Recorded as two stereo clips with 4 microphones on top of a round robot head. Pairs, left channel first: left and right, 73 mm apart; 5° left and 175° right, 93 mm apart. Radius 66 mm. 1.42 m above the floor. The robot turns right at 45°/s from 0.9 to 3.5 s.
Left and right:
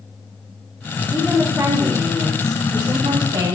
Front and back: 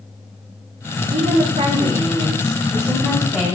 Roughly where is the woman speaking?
Behind.